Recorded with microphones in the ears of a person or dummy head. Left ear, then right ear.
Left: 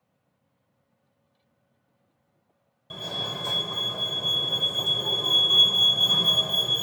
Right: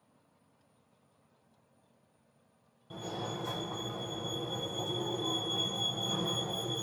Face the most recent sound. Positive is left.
turn(degrees=35)  # may be behind; listen again after turning